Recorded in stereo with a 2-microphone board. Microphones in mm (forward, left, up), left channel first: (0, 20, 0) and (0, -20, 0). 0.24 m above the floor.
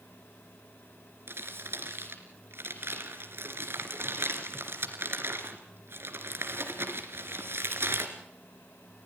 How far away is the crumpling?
About 2.5 m.